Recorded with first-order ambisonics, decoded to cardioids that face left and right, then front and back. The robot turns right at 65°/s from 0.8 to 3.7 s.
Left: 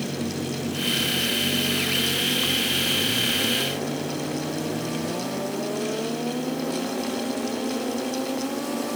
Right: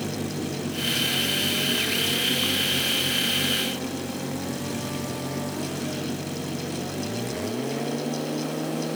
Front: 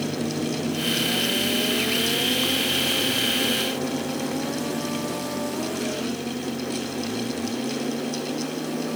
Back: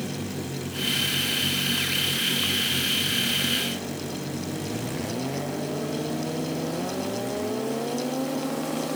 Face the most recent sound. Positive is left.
No sound to turn to.